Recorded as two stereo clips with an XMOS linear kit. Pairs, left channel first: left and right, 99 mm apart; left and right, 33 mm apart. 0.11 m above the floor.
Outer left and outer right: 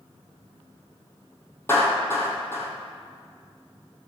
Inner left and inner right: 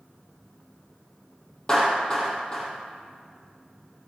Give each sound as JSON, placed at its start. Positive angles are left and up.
{"t": 1.7, "sound": "a clap", "side_deg": 25, "distance_m": 3.5}